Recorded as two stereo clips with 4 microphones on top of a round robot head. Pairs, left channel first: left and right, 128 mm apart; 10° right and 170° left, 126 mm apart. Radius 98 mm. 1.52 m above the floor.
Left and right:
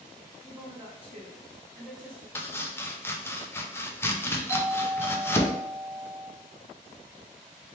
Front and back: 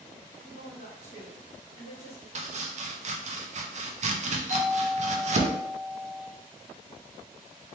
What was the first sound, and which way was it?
A woman speaking, 140° right.